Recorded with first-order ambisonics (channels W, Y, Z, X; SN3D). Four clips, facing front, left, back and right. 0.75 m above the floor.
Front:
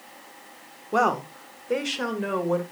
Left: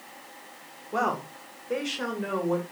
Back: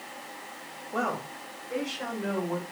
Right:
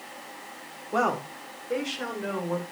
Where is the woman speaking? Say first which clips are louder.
Right 2 dB, front 8 dB; 10° right, 2 m; by 2.6 s 15° left, 3.5 m.